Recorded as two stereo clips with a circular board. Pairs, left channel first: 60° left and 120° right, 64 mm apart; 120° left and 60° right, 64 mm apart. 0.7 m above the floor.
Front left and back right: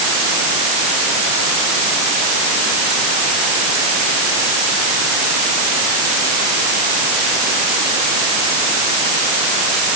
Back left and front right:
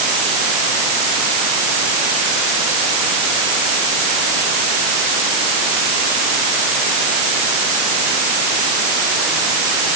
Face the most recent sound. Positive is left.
No sound to turn to.